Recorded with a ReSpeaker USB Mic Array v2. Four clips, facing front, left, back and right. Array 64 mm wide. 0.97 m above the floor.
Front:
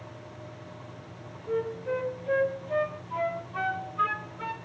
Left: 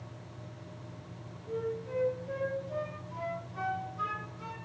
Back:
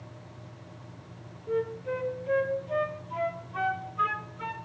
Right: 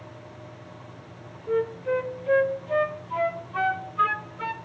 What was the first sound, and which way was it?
A flute, 85° right.